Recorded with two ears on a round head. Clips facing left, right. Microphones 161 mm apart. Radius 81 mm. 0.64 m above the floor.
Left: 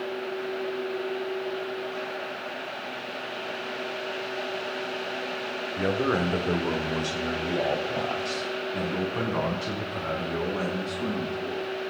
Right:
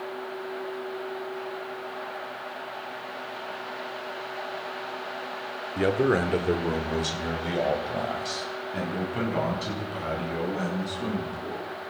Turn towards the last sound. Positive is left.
turn(degrees=-10)  # may be behind; listen again after turning